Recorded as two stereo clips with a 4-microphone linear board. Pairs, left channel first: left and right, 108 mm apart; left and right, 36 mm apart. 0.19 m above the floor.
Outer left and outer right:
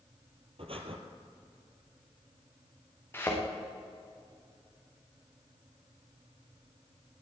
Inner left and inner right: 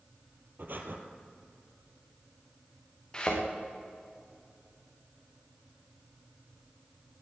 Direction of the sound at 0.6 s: 60° right (ahead or behind).